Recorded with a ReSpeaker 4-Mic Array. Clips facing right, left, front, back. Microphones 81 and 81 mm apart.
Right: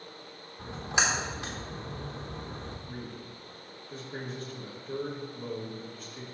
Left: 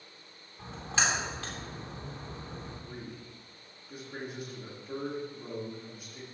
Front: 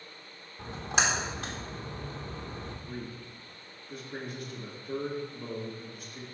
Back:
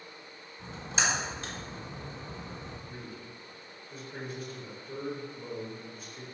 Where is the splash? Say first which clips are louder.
Right 2 dB, front 3 dB; 15° right, 2.5 m.